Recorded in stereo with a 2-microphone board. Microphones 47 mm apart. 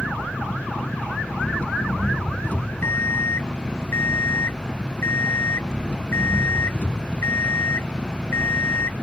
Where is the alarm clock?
55° left (ahead or behind).